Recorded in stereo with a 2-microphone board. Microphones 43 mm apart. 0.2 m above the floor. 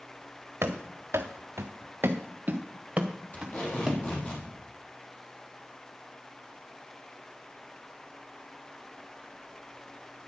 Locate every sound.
0.6 s running footsteps: 70° right (ahead or behind), 1.3 m; by 4.3 s 5° right (ahead or behind), 2 m
3.3 s tape being pulled: 35° left (ahead or behind), 4.5 m